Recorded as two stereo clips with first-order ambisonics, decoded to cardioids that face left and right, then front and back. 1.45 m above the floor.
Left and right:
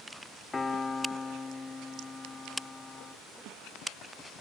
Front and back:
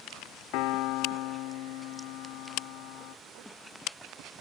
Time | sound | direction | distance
0.5 | a piano | 15° left | 0.6 m